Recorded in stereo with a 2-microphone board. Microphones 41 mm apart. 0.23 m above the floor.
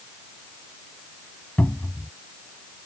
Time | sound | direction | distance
1.6 | a cupboard door | 40° left (ahead or behind) | ?